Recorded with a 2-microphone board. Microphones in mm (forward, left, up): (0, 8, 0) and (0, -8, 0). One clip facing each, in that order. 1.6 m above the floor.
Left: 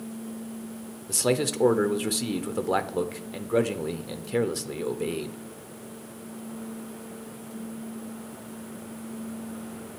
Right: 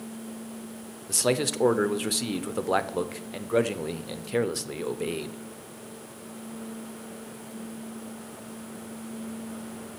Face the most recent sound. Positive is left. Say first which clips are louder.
# even
turn(degrees=-10)  # may be behind; listen again after turning